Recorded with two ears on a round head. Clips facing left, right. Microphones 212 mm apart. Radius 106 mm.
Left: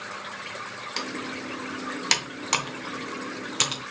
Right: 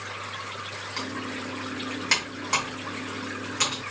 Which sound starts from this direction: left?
Typing on a keyboard, at 1.0 s.